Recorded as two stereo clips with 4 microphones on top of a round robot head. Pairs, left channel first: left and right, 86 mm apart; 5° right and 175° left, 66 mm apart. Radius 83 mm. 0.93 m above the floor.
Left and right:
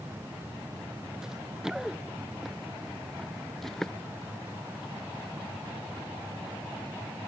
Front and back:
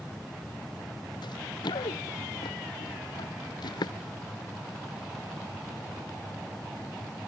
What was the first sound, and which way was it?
Running footsteps, 5° right.